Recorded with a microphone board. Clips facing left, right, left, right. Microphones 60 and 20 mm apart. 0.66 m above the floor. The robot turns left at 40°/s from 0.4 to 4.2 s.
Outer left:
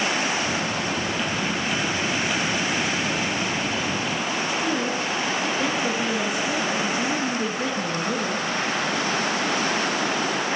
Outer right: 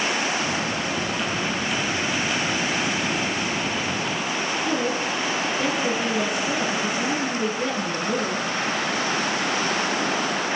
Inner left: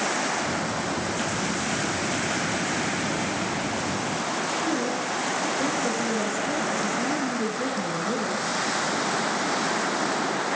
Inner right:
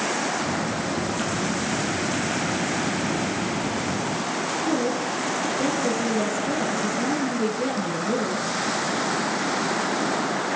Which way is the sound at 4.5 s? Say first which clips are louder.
Outer right 2 dB, inner right 4 dB; centre (ahead or behind).